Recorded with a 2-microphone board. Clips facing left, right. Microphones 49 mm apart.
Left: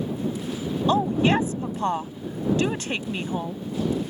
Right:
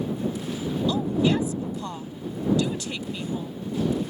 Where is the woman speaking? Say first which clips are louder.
Left 3 dB; 45° left (ahead or behind).